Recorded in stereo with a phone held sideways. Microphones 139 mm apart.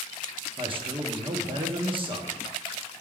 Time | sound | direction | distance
0.6 | a man speaking | 40° right (ahead or behind) | 1.1 m